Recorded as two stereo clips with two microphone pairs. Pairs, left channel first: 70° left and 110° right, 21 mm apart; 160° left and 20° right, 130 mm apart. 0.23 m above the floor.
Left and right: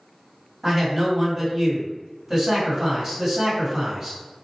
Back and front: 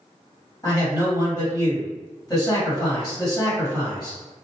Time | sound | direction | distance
0.6 | a man speaking | 165° right | 1.9 m